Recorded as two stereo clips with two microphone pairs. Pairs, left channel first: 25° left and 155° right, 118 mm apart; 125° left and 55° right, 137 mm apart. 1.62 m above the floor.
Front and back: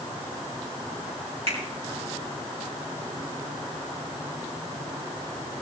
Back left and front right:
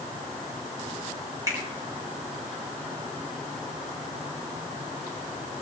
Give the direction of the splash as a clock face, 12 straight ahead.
I don't hear a splash.